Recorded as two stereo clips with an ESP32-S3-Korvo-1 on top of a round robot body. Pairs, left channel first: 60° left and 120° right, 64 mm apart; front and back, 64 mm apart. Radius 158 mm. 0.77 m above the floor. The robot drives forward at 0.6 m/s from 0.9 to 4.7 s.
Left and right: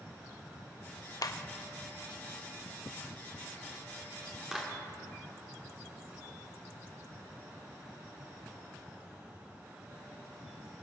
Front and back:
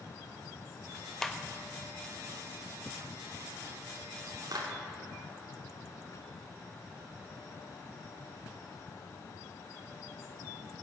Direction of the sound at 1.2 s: 85° left.